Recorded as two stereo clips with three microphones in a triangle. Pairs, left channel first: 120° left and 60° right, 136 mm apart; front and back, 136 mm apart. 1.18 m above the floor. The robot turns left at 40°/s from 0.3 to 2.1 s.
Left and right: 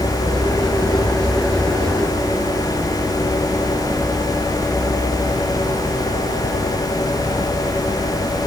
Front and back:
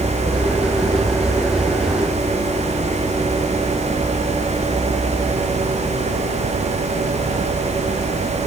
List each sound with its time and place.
Only background noise.